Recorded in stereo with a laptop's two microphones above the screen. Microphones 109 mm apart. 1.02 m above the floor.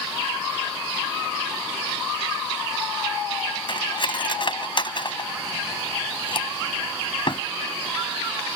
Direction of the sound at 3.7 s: 50° left (ahead or behind).